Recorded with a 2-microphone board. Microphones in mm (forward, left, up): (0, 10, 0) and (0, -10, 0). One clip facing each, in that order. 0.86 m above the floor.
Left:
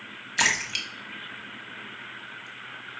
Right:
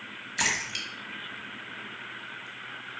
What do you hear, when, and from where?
0.4 s a splash: 30° left (ahead or behind), 2.5 m